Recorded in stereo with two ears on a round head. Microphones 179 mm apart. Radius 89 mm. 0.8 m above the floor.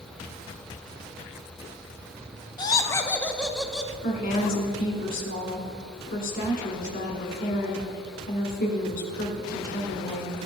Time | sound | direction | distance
2.6 | laughter | 20° left (ahead or behind) | 0.5 m
4.0 | a woman speaking | 45° left (ahead or behind) | 2 m